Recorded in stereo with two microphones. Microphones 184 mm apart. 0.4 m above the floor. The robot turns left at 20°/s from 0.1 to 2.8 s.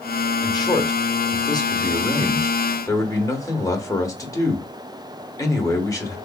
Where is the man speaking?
20° left (ahead or behind), 1.0 m; by 6.2 s 15° left (ahead or behind), 1.0 m.